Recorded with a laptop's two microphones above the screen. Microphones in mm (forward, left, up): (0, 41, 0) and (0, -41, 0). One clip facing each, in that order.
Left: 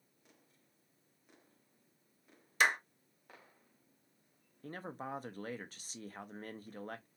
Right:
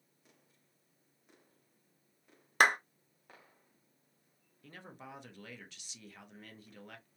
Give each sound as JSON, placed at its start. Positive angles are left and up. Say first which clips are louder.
{"t": 2.6, "sound": "a clap", "louder": "right 4 dB", "side_deg": -55, "distance_m": 0.6}
{"t": 4.6, "sound": "a man speaking", "louder": "left 7 dB", "side_deg": 40, "distance_m": 0.6}